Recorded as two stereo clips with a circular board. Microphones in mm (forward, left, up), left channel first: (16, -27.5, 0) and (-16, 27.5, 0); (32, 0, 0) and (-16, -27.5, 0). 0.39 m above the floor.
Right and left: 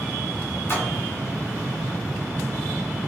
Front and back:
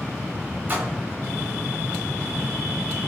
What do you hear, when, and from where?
0.7 s a splash: 100° right, 0.8 m